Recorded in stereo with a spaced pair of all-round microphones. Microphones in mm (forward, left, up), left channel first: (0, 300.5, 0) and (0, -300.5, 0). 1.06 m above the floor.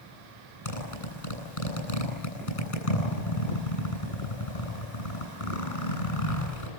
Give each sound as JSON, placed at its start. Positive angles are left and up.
{"t": 0.7, "sound": "a zipper", "side_deg": 60, "distance_m": 9.5}